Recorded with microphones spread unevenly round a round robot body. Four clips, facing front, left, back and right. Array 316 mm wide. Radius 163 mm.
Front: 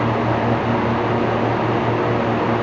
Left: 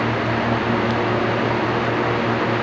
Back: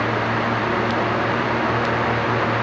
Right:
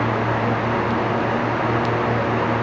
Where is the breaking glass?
No breaking glass in this recording.